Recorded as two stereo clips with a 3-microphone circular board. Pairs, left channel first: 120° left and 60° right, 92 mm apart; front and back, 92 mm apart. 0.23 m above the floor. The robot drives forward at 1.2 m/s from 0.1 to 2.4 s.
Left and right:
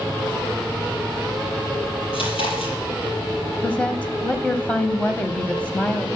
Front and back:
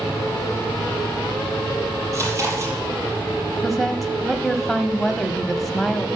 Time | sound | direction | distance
2.1 | chewing | 125° left | 5 m
3.6 | a woman speaking | 90° left | 0.9 m